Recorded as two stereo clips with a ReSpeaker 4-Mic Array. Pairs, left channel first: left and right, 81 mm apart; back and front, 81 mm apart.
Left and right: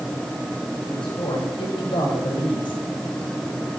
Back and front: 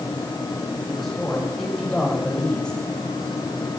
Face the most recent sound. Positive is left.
turn(degrees=105)